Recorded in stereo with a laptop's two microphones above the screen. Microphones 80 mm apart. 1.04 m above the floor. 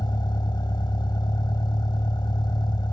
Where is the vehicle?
65° left (ahead or behind).